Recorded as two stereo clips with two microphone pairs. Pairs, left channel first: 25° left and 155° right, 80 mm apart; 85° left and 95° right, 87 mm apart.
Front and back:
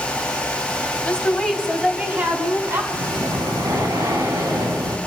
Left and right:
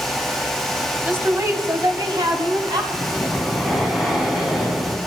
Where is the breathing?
Straight behind, 3 m.